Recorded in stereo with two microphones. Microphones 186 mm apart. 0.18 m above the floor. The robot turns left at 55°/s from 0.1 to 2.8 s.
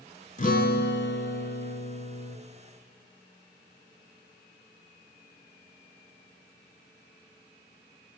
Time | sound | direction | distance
0.4 | a guitar | 135° left | 0.5 m